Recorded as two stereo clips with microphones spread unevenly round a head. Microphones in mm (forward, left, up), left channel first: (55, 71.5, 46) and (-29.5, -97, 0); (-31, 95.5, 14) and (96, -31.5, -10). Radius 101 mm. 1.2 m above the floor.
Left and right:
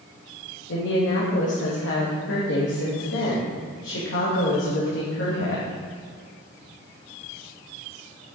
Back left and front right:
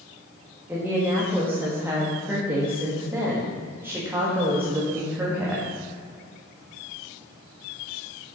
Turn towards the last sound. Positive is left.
turn(degrees=35)